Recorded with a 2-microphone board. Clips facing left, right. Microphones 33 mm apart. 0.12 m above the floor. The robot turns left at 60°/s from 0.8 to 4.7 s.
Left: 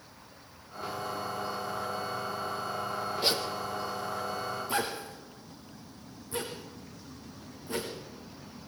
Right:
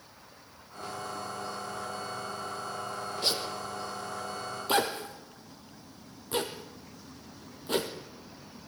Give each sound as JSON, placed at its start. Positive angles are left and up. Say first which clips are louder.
{"t": 3.2, "sound": "a zipper", "louder": "left 1 dB", "side_deg": 10, "distance_m": 2.5}